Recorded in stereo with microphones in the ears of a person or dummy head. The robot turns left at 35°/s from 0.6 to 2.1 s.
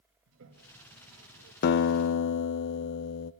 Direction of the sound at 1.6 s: 50° left (ahead or behind).